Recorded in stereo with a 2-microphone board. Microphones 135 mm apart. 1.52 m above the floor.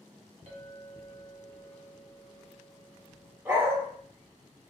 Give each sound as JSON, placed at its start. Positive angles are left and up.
{"t": 0.5, "sound": "a clink", "side_deg": -55, "distance_m": 1.0}
{"t": 3.5, "sound": "a dog barking", "side_deg": -15, "distance_m": 1.3}